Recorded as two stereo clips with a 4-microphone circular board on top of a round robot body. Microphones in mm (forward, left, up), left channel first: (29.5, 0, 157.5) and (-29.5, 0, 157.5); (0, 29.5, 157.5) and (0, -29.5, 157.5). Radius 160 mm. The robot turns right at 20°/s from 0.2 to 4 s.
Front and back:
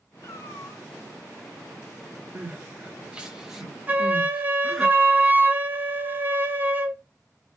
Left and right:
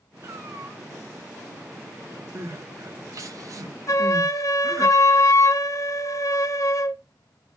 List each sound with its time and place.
0.2 s a cat meowing: 45° right, 0.8 m; by 0.8 s 30° right, 0.8 m
2.4 s crying: 125° right, 1.3 m; by 4.9 s 90° right, 1.3 m
3.9 s a flute: 115° left, 1.2 m; by 7.0 s 120° left, 1.2 m